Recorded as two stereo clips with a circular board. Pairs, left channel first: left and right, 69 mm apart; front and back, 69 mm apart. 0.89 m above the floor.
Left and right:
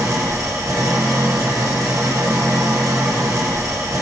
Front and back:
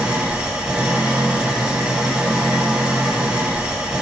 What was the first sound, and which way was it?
An engine running, 110° right.